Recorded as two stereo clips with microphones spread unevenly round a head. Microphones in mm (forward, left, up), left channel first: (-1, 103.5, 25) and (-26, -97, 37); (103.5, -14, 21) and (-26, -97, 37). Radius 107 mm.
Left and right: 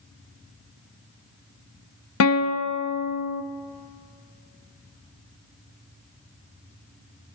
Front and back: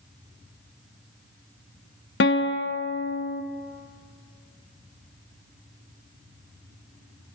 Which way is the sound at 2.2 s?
60° left.